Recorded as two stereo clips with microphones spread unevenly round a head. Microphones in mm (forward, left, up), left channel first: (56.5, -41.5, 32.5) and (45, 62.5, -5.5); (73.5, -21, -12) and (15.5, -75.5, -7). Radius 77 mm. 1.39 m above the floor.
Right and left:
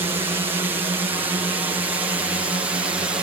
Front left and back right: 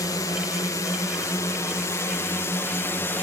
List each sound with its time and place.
0.0 s a drone: 70° left; by 3.2 s 80° left